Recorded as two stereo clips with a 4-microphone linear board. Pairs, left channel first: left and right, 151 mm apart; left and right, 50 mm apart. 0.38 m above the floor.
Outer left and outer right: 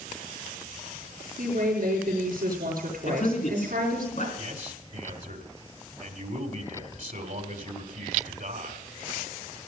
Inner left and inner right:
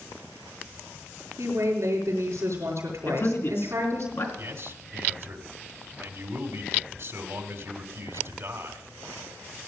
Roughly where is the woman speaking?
Right.